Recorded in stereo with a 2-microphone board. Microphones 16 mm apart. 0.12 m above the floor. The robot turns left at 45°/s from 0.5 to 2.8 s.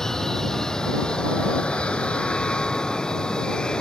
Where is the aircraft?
35° left (ahead or behind); by 3.8 s 45° left (ahead or behind).